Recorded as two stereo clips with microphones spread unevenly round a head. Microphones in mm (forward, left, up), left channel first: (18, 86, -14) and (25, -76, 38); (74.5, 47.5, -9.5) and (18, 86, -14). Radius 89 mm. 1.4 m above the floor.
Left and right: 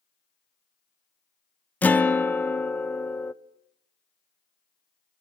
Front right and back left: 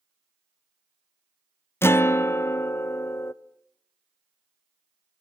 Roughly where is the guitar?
Ahead.